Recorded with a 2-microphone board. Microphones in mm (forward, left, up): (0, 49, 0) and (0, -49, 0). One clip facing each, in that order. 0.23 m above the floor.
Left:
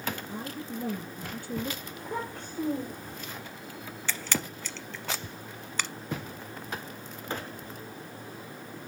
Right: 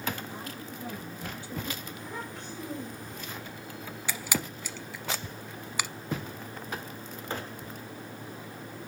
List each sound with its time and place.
0.3 s a woman speaking: 50° left (ahead or behind), 5.5 m
1.9 s a child speaking: 40° left (ahead or behind), 5.5 m
4.1 s a camera shutter: 10° right (ahead or behind), 0.8 m